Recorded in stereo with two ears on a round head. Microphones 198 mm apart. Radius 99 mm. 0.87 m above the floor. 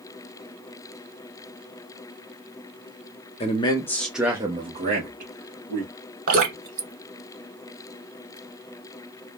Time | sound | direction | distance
3.4 | a man speaking | 30° left (ahead or behind) | 0.7 m
6.3 | dripping | 45° right (ahead or behind) | 1.4 m